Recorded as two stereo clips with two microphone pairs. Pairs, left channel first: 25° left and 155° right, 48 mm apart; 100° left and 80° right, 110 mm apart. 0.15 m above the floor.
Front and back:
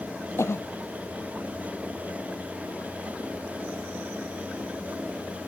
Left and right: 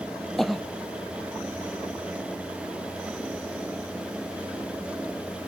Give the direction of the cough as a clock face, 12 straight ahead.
12 o'clock.